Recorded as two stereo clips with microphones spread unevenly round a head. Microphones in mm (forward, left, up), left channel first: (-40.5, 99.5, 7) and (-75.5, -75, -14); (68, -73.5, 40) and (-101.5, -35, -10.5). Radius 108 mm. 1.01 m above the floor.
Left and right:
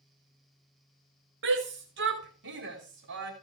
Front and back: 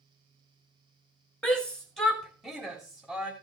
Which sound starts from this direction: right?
A shout, at 1.4 s.